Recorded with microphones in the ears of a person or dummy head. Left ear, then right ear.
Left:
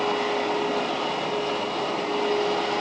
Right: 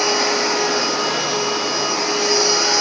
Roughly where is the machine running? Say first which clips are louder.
Right 7 dB; right.